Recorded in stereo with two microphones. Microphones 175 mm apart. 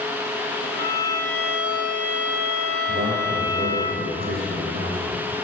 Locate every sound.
0.7 s a violin: 80° right, 1.6 m
2.9 s a man speaking: 60° right (ahead or behind), 3 m